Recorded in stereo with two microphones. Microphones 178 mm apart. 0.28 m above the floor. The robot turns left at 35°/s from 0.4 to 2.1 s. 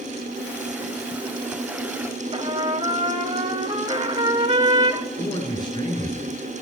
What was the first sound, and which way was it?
A trumpet, 30° right (ahead or behind).